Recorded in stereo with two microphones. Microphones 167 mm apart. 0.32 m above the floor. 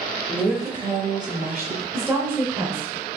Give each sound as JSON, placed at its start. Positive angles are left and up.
{"t": 0.3, "sound": "a woman speaking", "side_deg": 5, "distance_m": 0.8}
{"t": 1.9, "sound": "a woman speaking", "side_deg": -15, "distance_m": 1.1}